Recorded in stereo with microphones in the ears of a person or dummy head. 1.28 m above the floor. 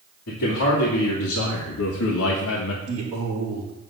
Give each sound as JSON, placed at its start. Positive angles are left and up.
{"t": 0.3, "sound": "a man speaking", "side_deg": 60, "distance_m": 2.5}
{"t": 2.9, "sound": "a man speaking", "side_deg": -25, "distance_m": 2.5}